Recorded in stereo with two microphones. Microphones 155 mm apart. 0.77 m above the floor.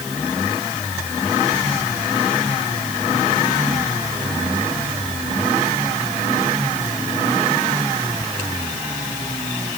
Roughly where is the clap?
No clap in this recording.